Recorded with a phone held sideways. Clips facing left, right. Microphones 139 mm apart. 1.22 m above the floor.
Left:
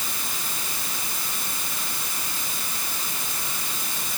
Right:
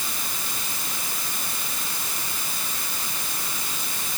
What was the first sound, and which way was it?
Only background noise.